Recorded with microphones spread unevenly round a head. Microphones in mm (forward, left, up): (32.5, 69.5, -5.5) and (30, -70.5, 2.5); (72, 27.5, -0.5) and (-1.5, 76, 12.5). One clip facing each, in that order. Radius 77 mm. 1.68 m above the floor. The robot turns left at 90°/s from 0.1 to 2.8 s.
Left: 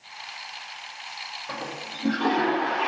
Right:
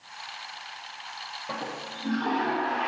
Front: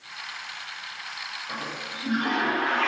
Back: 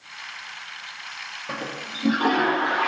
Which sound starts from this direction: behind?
A toilet flushing, at 1.5 s.